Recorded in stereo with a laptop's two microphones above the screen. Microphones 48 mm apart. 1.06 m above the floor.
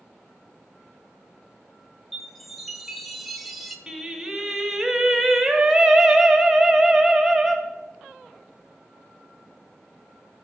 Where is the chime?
Centre (ahead or behind), 0.6 m.